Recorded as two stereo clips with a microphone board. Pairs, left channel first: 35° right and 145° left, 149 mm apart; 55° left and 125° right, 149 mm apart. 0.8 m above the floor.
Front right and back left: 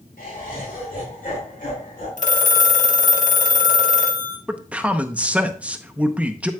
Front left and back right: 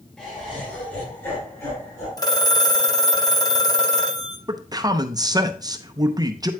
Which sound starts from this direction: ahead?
A phone ringing, at 2.2 s.